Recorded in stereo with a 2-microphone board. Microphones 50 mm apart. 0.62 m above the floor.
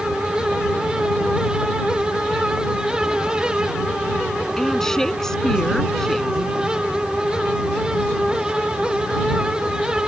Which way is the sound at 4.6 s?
10° left (ahead or behind).